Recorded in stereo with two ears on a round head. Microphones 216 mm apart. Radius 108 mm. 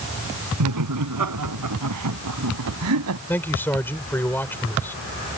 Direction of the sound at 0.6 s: 85° right.